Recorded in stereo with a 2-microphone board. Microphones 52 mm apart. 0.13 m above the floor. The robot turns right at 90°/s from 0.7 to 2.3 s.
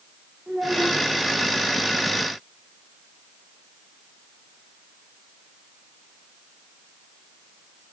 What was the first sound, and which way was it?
A child speaking, 25° right.